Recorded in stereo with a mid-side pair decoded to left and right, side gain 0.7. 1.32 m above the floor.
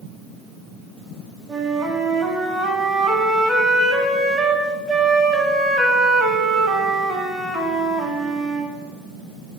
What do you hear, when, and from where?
1.5 s a flute: 15° right, 2.5 m